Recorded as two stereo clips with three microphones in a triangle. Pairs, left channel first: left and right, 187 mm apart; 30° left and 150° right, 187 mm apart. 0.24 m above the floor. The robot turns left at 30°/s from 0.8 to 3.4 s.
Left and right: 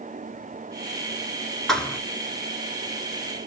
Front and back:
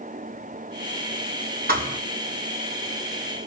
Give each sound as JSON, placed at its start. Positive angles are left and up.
{"t": 1.7, "sound": "a thud", "azimuth_deg": 180, "distance_m": 0.7}